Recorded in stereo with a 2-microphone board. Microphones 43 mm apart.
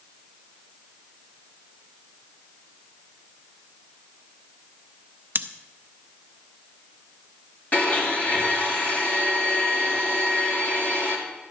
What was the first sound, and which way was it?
Scissors, 50° right (ahead or behind).